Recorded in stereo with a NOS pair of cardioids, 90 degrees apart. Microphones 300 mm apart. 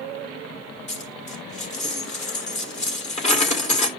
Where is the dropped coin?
25° left, 2.5 m.